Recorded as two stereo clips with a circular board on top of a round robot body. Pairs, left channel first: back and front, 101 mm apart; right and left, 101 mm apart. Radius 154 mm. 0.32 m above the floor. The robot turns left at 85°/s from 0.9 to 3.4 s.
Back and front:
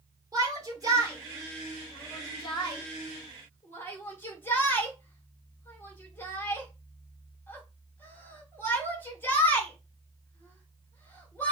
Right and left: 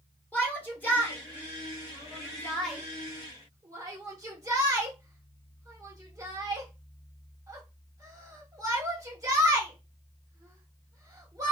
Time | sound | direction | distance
0.3 | a shout | 25° right | 1.7 m